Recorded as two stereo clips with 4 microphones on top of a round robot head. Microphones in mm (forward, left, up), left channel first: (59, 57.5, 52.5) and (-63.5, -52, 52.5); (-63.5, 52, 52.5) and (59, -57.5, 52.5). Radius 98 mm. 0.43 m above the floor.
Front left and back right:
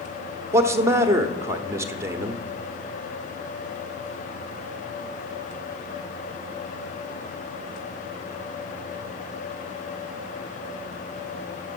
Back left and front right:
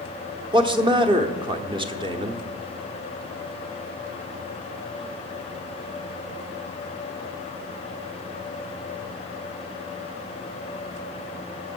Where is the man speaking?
75° right, 1.0 m.